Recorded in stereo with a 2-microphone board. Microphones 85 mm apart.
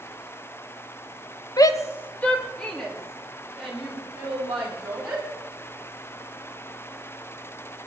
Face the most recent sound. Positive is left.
turn(degrees=-5)  # may be behind; listen again after turning